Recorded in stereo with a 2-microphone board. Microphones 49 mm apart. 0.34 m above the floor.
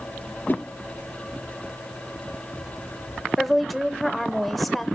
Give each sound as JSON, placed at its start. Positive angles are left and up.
{"t": 0.5, "sound": "a whoosh", "side_deg": 40, "distance_m": 3.0}
{"t": 3.4, "sound": "a woman speaking", "side_deg": 0, "distance_m": 0.9}